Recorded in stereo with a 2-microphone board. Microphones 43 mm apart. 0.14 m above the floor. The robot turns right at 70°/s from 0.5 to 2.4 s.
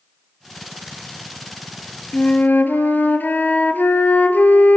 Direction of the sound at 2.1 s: 35° left (ahead or behind).